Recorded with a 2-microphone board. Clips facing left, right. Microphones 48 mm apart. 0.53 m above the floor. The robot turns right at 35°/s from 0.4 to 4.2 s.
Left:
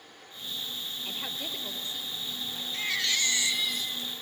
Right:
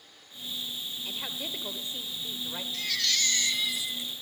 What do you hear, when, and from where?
1.1 s a woman speaking: 175° left, 1.8 m; by 2.6 s 125° right, 1.8 m
2.7 s a baby crying: 150° left, 1.3 m; by 4.1 s 160° right, 1.3 m